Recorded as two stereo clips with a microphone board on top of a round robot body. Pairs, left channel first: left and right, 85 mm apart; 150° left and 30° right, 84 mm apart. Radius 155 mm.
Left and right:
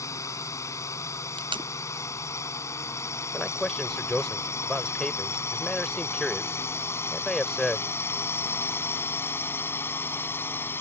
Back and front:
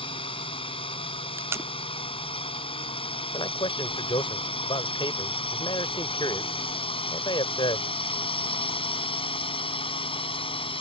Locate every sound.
0.0 s a drone: 145° left; by 10.8 s 155° left
1.4 s tape being pulled: 90° right
3.3 s a man speaking: 175° left